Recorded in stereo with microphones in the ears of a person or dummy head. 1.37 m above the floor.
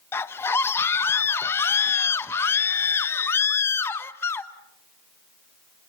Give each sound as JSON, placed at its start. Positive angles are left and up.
{"t": 0.1, "sound": "a scream", "side_deg": 15, "distance_m": 1.1}